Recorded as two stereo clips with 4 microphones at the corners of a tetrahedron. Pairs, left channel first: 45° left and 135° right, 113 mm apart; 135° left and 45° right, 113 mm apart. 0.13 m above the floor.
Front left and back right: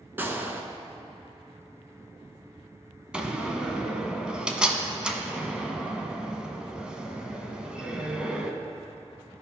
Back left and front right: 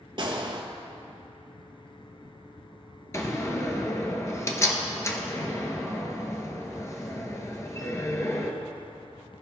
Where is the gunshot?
70° right, 0.8 m.